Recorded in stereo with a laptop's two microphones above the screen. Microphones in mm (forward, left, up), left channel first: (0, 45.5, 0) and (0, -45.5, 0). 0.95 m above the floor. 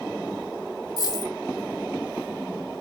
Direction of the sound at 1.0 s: 45° left (ahead or behind).